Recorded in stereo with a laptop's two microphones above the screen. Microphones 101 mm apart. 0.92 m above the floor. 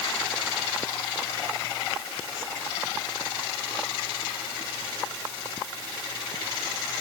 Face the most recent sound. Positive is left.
No sound to turn to.